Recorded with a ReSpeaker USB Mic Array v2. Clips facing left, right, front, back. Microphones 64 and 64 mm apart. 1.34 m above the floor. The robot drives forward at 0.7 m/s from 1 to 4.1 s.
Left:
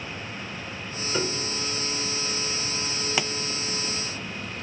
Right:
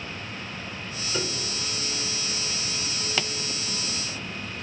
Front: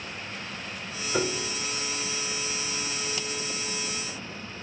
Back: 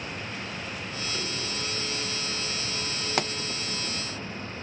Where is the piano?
15° left, 1.9 m; by 1.6 s 20° left, 1.6 m.